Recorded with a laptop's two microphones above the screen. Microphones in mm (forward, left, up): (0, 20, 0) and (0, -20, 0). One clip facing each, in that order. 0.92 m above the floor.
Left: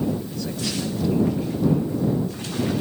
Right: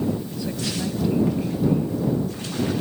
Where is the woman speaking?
15° right (ahead or behind).